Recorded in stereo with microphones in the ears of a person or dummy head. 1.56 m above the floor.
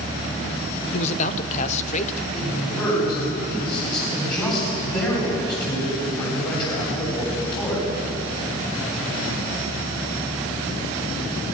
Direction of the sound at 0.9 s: 40° left (ahead or behind).